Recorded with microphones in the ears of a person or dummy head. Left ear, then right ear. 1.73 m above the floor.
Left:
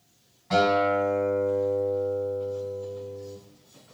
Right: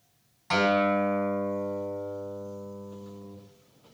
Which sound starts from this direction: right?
A guitar, at 0.5 s.